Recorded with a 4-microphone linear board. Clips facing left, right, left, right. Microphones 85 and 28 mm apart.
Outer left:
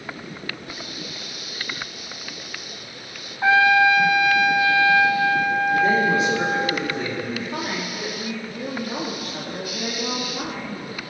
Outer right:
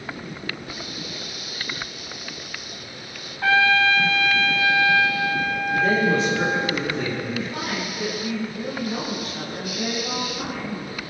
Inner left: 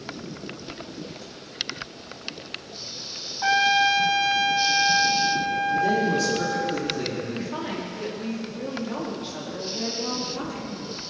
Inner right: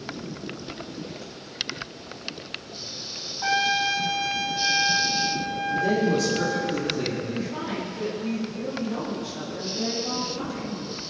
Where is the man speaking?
10° left (ahead or behind), 3.5 m.